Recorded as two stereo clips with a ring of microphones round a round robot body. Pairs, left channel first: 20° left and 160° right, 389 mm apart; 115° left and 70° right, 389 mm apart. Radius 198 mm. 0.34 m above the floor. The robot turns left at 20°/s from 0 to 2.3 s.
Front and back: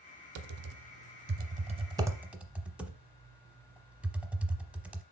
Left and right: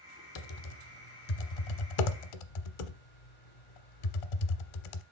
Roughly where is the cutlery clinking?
No cutlery clinking in this recording.